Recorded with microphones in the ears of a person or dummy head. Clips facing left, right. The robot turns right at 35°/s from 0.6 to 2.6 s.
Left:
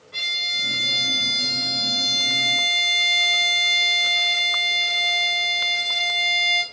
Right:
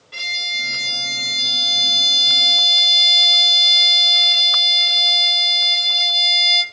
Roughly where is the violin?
Behind right.